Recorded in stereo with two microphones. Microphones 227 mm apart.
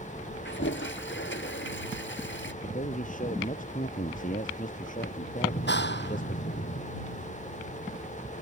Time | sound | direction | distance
0.5 | a toilet flushing | 55° left (ahead or behind) | ?
2.6 | a man speaking | 35° left (ahead or behind) | ?
5.5 | a clap | 50° left (ahead or behind) | ?